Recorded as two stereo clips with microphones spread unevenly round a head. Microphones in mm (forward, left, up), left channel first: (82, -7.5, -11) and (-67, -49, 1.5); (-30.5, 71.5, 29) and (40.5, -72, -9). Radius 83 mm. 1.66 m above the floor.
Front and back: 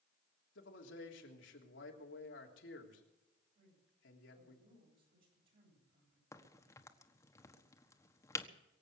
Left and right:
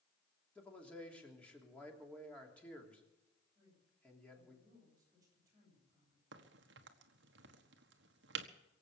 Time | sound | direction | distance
0.6 | a man speaking | 35° left | 3 m
3.5 | a man speaking | 135° right | 9 m
6.3 | a crack | 55° right | 1.4 m